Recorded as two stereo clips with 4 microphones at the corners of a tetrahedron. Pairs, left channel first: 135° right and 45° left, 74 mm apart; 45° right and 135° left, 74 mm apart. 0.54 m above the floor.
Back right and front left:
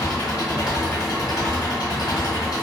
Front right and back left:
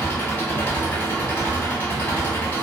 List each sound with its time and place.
0.0 s an engine running: 110° right, 1.6 m